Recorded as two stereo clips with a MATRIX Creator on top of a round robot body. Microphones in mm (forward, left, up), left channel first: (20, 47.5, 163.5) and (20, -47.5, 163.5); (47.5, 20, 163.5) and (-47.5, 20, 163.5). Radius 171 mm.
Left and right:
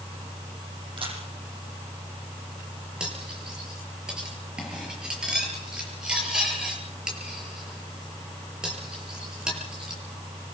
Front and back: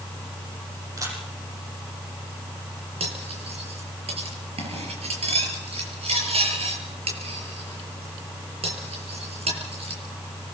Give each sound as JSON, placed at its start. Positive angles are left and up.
{"t": 1.0, "sound": "a camera shutter", "azimuth_deg": -125, "distance_m": 8.0}
{"t": 3.0, "sound": "cutlery clinking", "azimuth_deg": -175, "distance_m": 6.0}